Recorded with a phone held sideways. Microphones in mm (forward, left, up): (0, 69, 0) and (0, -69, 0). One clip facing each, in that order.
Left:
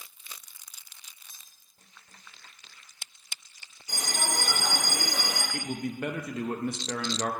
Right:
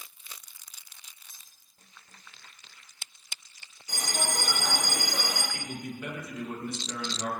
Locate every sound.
1.3 s cutlery clinking: 25° left (ahead or behind), 4 m
3.9 s a bell: 5° left (ahead or behind), 3.5 m
5.5 s a man speaking: 60° left (ahead or behind), 0.7 m